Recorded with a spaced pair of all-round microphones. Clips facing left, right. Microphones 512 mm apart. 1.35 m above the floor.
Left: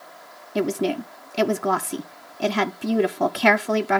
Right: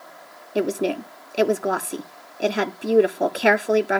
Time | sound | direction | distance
0.6 | a woman speaking | 25° left (ahead or behind) | 0.5 m